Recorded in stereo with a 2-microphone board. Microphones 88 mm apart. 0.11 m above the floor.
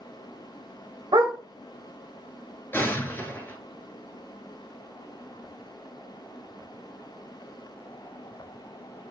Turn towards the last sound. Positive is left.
turn(degrees=25)  # may be behind; listen again after turning